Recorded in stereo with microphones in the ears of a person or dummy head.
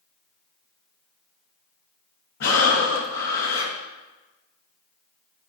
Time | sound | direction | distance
2.4 | breathing | 60° left (ahead or behind) | 1.5 m